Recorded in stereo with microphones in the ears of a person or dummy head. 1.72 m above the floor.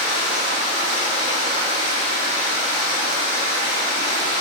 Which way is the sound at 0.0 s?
40° right (ahead or behind).